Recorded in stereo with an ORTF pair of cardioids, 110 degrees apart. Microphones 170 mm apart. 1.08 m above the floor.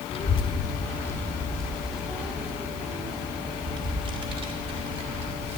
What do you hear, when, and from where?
0.1 s a child speaking: 35° left, 1.3 m; by 5.6 s 40° right, 3 m